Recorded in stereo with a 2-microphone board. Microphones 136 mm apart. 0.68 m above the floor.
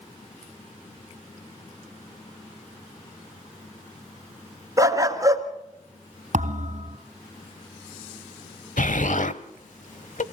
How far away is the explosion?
About 0.9 m.